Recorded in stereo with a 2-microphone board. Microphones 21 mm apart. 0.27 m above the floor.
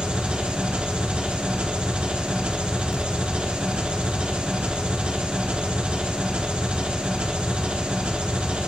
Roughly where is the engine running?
Right.